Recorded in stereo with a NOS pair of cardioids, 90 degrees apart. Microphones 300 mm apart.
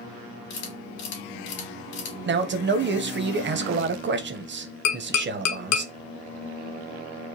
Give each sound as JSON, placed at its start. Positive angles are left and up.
{"t": 0.5, "sound": "a camera shutter", "azimuth_deg": 70, "distance_m": 2.5}
{"t": 2.3, "sound": "a man speaking", "azimuth_deg": -40, "distance_m": 0.8}
{"t": 4.8, "sound": "tapping", "azimuth_deg": 70, "distance_m": 1.0}